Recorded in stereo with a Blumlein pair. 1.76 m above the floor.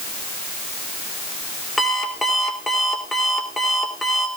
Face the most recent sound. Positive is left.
turn(degrees=5)